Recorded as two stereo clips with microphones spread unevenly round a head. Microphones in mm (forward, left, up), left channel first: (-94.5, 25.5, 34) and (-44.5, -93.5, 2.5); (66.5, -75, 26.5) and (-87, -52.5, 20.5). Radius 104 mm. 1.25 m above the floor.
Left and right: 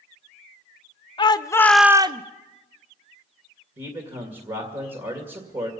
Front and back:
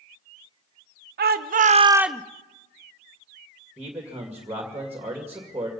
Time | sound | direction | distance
1.2 | a shout | 170° left | 1.0 m
3.8 | a man speaking | 110° right | 2 m